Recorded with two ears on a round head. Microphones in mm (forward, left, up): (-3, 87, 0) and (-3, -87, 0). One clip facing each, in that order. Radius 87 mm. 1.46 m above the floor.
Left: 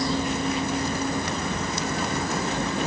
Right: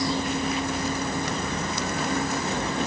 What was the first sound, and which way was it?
Only background noise.